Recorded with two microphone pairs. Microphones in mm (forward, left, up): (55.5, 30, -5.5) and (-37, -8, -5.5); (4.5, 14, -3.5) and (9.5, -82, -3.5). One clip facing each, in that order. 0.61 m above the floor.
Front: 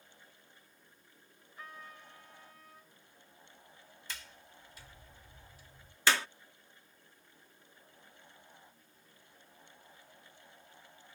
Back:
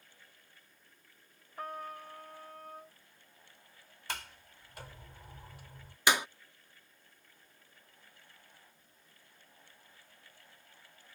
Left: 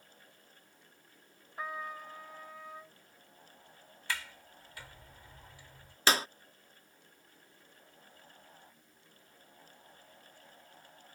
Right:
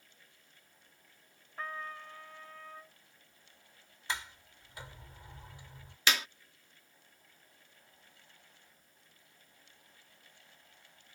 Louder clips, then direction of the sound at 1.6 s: Back 9 dB, left 2 dB; 170° left.